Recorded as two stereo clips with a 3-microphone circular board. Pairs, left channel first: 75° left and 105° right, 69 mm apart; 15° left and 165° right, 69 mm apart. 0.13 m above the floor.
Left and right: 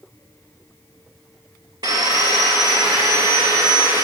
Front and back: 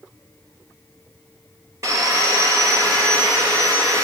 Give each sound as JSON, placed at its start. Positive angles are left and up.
{"t": 1.8, "sound": "sawing", "azimuth_deg": -120, "distance_m": 2.5}